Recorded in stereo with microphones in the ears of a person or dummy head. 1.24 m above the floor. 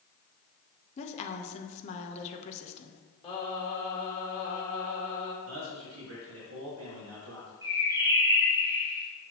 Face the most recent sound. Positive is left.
turn(degrees=-20)  # may be behind; listen again after turning